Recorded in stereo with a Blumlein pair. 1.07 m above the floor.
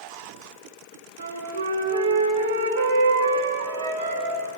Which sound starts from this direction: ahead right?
A flute, at 1.2 s.